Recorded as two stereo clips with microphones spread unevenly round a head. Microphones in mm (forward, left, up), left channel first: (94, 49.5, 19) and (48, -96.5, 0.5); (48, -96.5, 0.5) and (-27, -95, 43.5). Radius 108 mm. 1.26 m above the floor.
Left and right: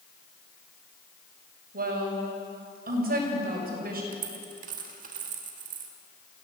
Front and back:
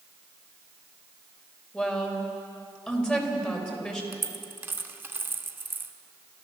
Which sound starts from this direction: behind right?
A dropped coin, at 4.1 s.